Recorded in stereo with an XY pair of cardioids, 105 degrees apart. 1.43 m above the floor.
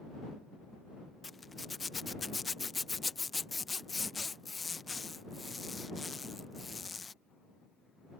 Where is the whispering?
I don't hear whispering.